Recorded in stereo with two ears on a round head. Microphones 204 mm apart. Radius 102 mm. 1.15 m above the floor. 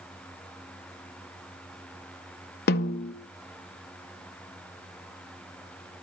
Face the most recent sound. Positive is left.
turn(degrees=45)  # may be behind; listen again after turning